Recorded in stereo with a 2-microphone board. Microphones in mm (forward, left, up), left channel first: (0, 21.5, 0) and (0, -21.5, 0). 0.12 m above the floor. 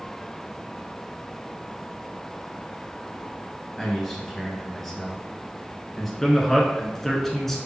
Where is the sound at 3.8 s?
5° left (ahead or behind), 1.7 m.